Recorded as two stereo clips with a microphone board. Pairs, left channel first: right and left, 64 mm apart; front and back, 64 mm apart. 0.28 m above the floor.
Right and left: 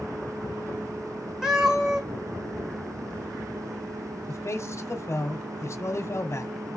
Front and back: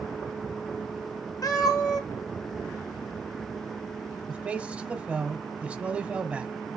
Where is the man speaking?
115° right, 1.4 m.